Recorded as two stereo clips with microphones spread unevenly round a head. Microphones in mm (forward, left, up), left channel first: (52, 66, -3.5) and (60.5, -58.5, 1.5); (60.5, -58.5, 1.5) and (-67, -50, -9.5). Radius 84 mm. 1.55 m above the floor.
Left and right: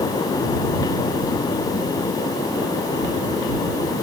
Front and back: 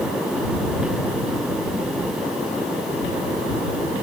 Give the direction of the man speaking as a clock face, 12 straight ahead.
I don't hear a man speaking.